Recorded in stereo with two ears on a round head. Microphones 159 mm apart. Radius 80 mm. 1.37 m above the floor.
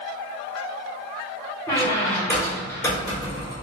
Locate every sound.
1.7 s a squeak: 15° left (ahead or behind), 1.3 m